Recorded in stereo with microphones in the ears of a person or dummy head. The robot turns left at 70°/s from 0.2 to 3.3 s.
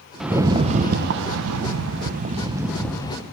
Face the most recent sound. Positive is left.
turn(degrees=140)